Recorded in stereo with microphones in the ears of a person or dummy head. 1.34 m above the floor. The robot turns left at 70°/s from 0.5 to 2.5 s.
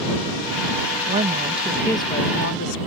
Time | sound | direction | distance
1.1 | a woman speaking | 130° right | ?